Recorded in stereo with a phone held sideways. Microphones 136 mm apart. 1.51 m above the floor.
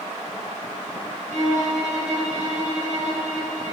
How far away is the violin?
About 5 m.